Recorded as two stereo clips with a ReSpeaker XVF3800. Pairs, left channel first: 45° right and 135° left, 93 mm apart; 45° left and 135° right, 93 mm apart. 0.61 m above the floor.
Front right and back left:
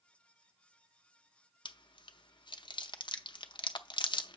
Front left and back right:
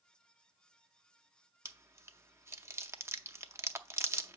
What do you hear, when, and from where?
1.6 s chewing: 75° right, 0.6 m